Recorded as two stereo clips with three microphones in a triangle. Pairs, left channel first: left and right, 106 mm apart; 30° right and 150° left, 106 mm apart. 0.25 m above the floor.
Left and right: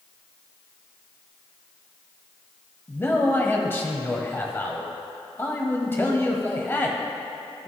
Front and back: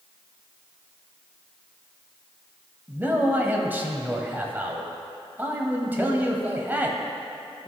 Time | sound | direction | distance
2.9 | a man speaking | 115° left | 1.0 m